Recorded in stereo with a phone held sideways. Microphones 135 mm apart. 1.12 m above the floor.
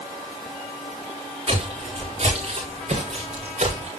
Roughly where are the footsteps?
Right.